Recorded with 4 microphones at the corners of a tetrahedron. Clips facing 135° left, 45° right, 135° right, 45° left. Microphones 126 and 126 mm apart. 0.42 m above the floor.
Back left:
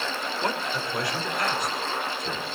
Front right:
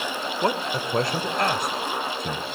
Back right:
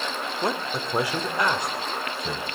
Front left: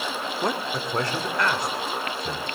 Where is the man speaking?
45° right, 0.8 m; by 2.5 s 70° right, 1.8 m.